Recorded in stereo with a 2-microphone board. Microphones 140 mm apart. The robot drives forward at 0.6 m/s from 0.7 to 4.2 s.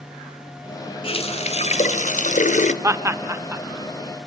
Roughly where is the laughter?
Centre.